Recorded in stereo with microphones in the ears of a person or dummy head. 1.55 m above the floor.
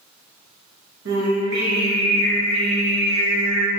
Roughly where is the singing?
Right.